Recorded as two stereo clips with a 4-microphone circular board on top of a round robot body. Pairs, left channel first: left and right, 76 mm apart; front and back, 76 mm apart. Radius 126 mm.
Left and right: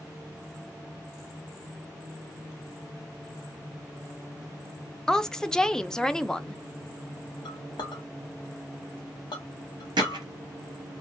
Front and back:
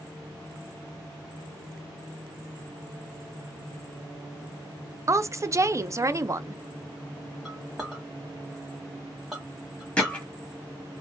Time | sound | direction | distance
5.1 | a woman speaking | 165° left | 0.5 m
7.5 | a clink | 100° left | 0.8 m
10.0 | hammering | 75° right | 0.8 m